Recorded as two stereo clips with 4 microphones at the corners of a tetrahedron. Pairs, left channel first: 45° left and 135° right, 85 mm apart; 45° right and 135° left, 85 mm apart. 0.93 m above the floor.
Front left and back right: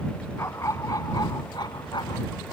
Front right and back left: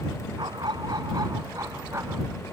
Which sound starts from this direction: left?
A dog barking, at 0.4 s.